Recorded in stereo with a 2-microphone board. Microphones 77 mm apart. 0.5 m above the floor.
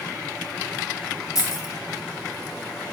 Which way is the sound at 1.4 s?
50° left (ahead or behind).